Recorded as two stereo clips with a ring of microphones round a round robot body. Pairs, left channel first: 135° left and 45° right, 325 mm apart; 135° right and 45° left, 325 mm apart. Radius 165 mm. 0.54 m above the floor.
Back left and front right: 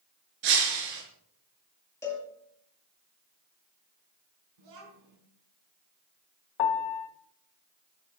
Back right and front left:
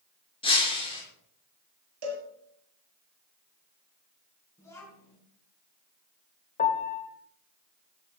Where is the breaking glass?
60° right, 5 m.